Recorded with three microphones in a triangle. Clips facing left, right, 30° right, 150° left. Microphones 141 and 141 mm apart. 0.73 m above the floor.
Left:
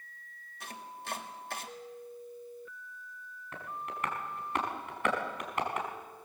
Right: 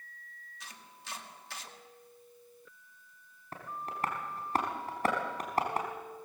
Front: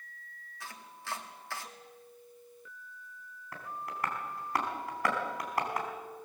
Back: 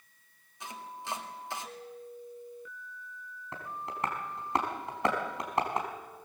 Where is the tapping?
145° right, 4 m.